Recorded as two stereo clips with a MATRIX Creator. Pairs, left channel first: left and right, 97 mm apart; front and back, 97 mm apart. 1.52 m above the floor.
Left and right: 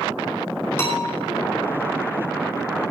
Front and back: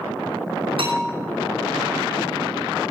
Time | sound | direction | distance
0.8 | a bell | 155° left | 9.5 m